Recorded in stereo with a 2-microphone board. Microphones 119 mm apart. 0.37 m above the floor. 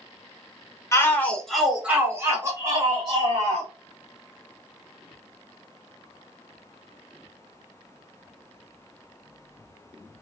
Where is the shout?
25° left (ahead or behind), 1.0 m; by 3.7 s 45° right (ahead or behind), 1.8 m.